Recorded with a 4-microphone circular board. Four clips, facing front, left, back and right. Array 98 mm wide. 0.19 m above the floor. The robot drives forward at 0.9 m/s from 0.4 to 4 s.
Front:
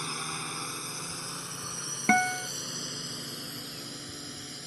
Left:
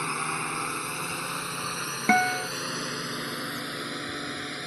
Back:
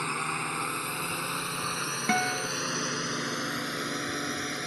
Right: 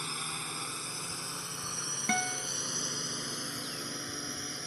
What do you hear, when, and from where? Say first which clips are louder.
0.0 s a drone: left 10 dB, back 6 dB; 120° left; by 4.7 s 150° left
2.1 s a guitar: left 11 dB, front 3 dB; 65° left; by 2.5 s 110° left